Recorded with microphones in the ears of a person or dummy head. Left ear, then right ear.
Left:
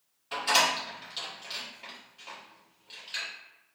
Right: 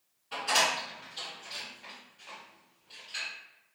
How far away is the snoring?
I don't hear snoring.